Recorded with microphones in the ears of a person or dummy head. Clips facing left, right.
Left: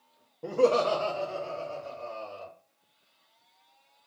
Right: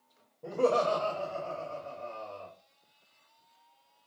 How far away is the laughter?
About 0.5 m.